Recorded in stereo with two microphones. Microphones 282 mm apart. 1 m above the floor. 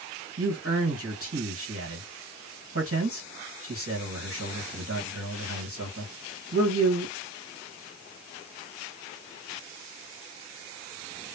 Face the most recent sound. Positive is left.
turn(degrees=-55)  # may be behind; listen again after turning